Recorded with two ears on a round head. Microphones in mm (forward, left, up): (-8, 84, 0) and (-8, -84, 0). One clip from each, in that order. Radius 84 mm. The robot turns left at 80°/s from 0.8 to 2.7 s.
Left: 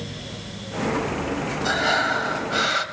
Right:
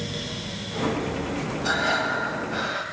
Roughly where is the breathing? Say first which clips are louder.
Left 2 dB; behind.